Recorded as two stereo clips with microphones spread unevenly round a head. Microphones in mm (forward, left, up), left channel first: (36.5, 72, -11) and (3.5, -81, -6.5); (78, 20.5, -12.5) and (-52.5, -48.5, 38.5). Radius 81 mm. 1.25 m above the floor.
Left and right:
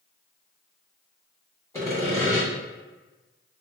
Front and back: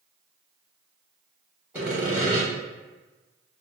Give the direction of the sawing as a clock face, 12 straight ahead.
7 o'clock.